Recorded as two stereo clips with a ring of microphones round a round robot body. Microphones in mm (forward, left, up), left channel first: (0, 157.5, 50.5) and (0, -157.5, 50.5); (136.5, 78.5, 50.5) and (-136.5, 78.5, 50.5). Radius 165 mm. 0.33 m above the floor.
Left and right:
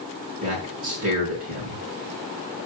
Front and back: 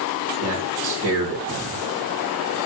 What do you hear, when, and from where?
0.4 s a man speaking: 135° right, 4 m